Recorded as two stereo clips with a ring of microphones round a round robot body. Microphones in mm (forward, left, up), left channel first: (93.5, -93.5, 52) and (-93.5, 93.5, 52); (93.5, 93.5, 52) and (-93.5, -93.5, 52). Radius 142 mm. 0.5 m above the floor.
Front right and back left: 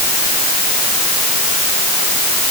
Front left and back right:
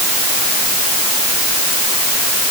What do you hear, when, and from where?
Only background noise.